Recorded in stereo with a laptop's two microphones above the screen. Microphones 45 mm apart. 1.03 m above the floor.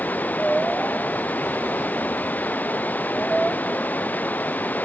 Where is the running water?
35° left (ahead or behind).